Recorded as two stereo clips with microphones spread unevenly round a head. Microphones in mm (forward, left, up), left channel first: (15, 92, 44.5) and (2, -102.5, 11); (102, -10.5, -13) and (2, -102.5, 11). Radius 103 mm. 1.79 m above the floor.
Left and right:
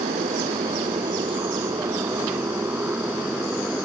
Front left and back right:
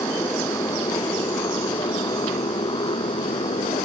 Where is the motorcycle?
25° right; by 3.9 s 5° right.